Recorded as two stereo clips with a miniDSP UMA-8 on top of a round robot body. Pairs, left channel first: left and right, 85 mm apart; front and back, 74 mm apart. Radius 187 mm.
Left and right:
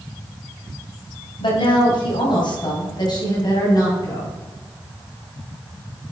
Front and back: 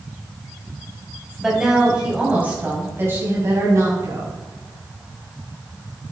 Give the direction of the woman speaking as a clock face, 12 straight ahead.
9 o'clock.